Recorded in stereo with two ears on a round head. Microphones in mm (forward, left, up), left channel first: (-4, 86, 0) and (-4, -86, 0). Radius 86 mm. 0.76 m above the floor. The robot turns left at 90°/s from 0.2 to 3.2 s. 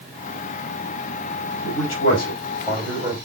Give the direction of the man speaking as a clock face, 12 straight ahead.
8 o'clock.